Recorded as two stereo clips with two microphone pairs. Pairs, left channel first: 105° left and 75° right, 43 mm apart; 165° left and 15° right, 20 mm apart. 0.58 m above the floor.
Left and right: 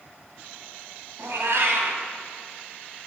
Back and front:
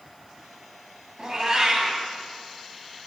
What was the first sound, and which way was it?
A cat meowing, 70° right.